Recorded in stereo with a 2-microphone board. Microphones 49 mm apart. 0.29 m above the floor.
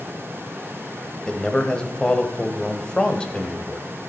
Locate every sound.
1.3 s a man speaking: 15° left (ahead or behind), 1.0 m